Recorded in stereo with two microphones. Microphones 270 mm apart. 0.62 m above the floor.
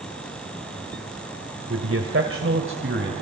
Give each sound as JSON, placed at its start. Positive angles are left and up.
{"t": 1.7, "sound": "a man speaking", "side_deg": -55, "distance_m": 2.0}